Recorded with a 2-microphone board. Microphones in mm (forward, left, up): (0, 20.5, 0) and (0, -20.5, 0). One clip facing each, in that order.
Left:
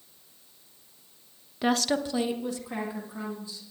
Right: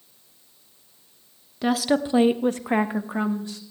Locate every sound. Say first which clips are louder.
1.6 s a woman speaking: right 4 dB; 10° left (ahead or behind), 0.9 m; by 3.6 s 70° right (ahead or behind), 2.5 m